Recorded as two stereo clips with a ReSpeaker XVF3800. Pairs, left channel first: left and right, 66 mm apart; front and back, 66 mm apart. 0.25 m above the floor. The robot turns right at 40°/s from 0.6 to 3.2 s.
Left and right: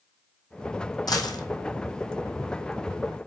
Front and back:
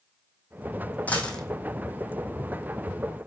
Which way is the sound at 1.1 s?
70° left.